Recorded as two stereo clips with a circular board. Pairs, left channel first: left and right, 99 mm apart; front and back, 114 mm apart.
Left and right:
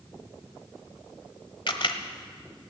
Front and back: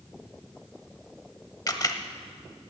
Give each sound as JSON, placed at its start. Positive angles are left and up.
{"t": 1.7, "sound": "a camera shutter", "azimuth_deg": 55, "distance_m": 1.1}